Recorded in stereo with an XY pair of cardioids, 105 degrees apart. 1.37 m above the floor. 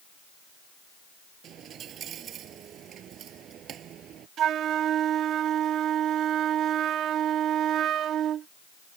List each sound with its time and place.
1.4 s a dropped coin: 65° right
4.4 s a flute: 70° right